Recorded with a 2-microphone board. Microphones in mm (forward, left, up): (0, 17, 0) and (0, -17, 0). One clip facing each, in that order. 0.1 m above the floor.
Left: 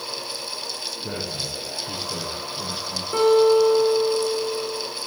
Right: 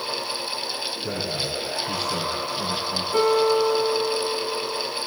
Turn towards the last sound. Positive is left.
turn(degrees=50)  # may be behind; listen again after turning